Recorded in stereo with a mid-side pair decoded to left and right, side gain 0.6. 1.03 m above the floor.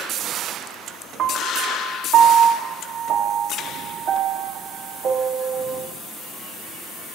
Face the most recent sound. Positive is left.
turn(degrees=-45)